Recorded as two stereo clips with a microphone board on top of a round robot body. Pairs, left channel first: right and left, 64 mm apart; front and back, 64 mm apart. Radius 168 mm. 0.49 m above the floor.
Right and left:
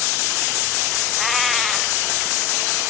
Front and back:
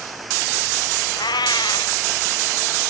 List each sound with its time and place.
1.2 s a cat meowing: straight ahead, 1.1 m